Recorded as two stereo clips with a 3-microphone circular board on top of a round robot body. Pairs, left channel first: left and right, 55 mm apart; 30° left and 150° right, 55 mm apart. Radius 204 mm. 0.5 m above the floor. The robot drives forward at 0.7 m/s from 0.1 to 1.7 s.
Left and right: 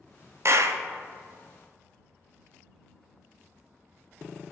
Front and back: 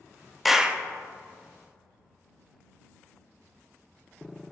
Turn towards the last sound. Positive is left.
turn(degrees=-145)